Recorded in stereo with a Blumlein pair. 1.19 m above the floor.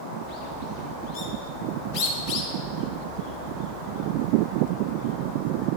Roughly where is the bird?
Ahead left.